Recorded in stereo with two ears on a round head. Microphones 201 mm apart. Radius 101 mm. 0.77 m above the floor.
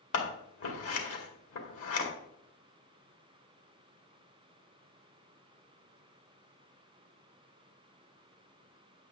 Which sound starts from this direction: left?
Scissors, at 0.1 s.